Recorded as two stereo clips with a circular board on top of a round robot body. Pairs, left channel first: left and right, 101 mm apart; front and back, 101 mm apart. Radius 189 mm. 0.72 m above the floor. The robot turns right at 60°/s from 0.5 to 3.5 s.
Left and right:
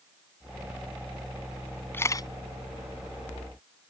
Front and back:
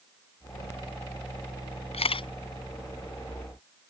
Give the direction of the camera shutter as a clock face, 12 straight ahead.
11 o'clock.